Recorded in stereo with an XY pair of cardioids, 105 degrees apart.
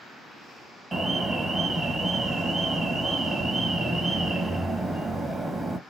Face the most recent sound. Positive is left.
turn(degrees=-25)